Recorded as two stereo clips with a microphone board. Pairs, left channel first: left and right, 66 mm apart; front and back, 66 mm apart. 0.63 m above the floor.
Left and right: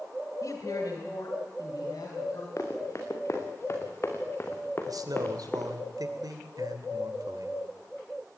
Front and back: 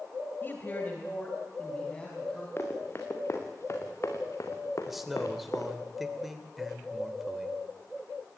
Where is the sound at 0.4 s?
55° left, 2.5 m; by 2.5 s 75° left, 4.5 m.